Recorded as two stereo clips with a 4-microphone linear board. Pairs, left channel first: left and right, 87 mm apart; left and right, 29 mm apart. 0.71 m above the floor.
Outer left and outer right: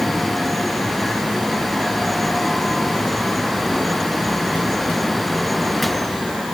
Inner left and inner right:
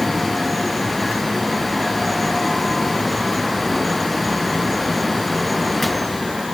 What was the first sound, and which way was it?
Only background noise.